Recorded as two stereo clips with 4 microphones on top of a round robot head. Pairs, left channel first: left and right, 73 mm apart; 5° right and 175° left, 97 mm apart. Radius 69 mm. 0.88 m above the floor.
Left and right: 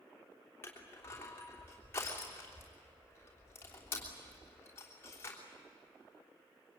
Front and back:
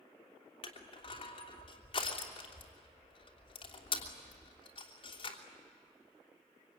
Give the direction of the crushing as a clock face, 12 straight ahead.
11 o'clock.